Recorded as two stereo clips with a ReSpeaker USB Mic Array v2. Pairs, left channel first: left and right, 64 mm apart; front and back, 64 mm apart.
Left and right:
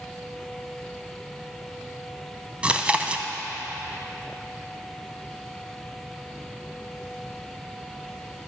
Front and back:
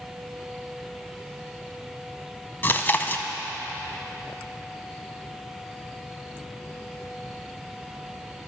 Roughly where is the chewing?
Ahead right.